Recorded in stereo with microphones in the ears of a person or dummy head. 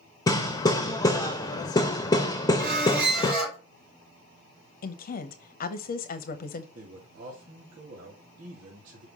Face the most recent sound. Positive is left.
turn(degrees=-45)  # may be behind; listen again after turning